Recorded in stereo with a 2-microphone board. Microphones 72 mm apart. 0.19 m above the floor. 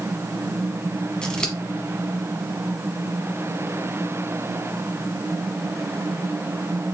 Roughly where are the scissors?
Centre.